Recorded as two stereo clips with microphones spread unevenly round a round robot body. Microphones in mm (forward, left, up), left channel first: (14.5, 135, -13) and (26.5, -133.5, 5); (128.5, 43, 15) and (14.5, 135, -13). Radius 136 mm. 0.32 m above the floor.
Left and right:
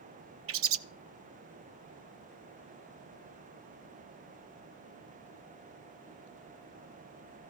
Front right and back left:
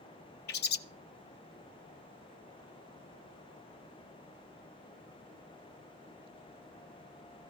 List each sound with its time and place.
0.5 s a bird: 45° right, 0.5 m